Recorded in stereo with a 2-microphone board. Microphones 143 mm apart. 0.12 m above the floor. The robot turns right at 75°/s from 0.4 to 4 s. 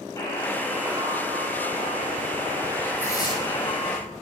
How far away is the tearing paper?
About 7.5 m.